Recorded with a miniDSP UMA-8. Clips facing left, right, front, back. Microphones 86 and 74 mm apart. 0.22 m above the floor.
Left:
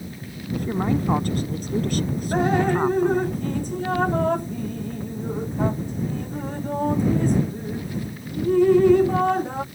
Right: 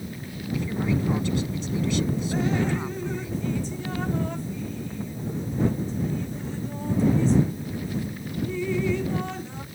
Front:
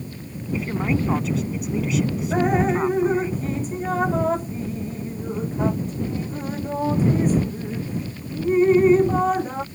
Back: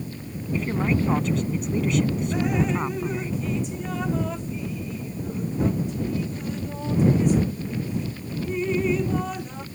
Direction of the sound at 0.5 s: 85° left.